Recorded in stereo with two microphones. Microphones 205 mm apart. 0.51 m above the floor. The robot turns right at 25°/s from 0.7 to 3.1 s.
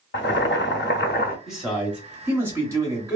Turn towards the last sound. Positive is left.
turn(degrees=-15)  # may be behind; listen again after turning